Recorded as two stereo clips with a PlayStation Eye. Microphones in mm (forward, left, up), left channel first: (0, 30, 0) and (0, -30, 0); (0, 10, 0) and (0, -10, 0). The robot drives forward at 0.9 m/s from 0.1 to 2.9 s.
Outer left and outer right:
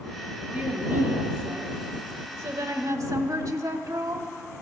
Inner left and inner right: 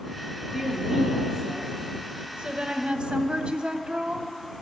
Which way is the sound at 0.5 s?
35° right (ahead or behind).